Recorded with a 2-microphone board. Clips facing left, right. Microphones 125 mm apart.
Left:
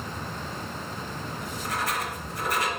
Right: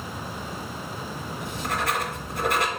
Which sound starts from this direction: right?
Writing, at 1.4 s.